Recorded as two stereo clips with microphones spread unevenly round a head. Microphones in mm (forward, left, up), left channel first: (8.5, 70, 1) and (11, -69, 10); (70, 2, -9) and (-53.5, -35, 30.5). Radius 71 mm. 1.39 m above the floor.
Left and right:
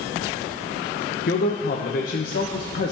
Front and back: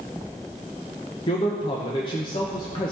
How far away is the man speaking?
About 1.3 m.